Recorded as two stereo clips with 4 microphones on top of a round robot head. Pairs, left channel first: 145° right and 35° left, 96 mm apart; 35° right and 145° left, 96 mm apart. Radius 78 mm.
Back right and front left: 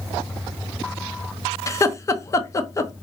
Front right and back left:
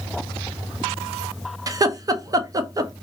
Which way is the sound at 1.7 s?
175° left.